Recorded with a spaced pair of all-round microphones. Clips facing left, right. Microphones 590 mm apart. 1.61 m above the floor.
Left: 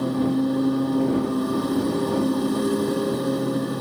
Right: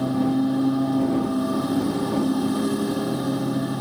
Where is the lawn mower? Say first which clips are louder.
Right 1 dB; 10° right (ahead or behind).